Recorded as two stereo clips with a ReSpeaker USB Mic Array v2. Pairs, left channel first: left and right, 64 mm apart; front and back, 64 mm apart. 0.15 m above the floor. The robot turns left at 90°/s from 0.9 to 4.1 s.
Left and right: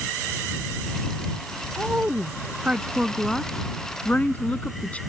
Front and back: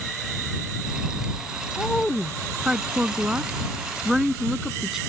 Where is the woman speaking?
45° right; by 5.0 s 105° left.